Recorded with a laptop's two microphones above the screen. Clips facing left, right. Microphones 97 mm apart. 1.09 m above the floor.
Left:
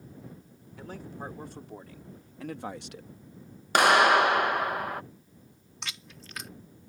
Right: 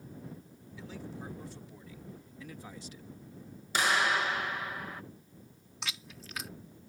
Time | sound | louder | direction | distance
0.8 | a man speaking | left 3 dB | 55° left (ahead or behind) | ?
3.8 | a clap | left 9 dB | 65° left (ahead or behind) | ?
5.8 | chewing | even | centre (ahead or behind) | ?